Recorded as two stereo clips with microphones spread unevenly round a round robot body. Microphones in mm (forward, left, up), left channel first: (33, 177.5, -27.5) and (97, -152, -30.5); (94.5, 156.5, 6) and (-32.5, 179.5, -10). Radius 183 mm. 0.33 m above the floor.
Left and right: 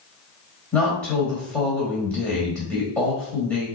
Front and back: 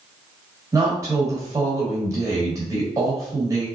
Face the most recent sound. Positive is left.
turn(degrees=-175)